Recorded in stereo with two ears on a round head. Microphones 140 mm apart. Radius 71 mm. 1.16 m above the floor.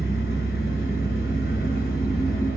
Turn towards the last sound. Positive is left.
turn(degrees=60)  # may be behind; listen again after turning